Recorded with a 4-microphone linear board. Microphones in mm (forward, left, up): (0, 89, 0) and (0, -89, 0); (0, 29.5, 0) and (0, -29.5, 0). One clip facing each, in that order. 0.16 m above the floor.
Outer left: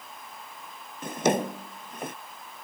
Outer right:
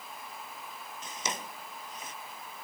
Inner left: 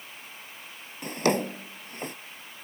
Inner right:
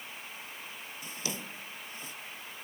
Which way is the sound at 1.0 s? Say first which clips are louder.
Outer left 16 dB, inner left 16 dB; 60° left (ahead or behind).